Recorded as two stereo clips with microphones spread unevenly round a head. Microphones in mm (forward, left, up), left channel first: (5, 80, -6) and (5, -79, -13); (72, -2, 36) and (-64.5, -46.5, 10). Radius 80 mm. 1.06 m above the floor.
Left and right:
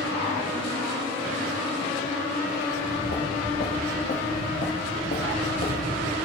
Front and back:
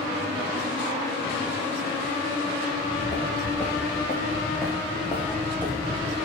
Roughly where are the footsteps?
Left.